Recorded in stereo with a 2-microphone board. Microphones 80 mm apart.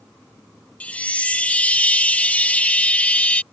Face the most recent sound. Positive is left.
turn(degrees=20)  # may be behind; listen again after turning